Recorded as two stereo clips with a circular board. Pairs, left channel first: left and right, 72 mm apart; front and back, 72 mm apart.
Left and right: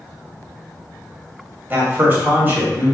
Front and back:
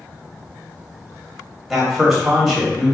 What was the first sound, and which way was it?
A man speaking, 95° right.